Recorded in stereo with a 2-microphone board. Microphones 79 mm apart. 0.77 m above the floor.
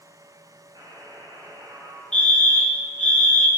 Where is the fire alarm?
15° left (ahead or behind), 4 m.